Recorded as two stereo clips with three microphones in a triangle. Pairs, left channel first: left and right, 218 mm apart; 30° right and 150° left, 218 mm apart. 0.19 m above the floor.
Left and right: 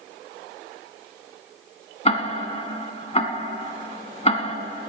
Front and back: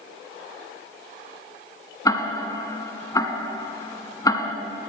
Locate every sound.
2.0 s ticking: 40° left, 1.0 m